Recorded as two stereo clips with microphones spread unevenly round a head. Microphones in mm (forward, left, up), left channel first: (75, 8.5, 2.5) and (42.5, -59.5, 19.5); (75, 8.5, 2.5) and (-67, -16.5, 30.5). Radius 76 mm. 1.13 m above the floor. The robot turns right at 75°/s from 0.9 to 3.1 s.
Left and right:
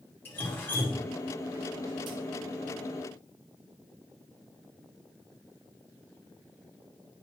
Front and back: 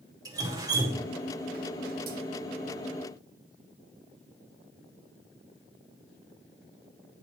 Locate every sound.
0.2 s dripping: 120° left, 0.9 m; by 2.2 s 145° right, 0.9 m